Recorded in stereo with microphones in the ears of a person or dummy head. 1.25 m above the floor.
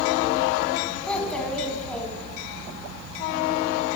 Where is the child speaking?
10° left (ahead or behind), 5.5 m.